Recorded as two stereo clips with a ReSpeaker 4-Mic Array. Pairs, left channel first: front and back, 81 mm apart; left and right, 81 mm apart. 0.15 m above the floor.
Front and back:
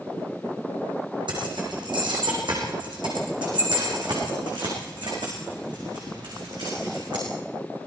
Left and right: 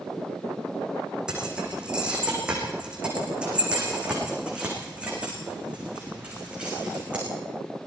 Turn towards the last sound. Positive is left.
turn(degrees=-165)